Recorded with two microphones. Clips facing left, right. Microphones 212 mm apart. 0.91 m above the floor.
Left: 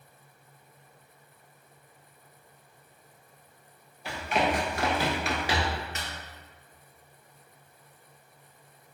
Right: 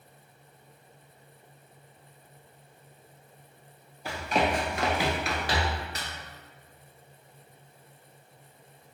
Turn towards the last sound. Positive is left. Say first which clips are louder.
# left 1 dB
turn(degrees=-35)  # may be behind; listen again after turning